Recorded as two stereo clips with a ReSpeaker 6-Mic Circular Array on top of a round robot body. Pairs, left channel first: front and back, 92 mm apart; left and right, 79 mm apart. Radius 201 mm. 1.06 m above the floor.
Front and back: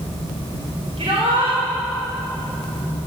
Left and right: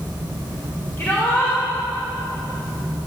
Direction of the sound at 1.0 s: 155° left.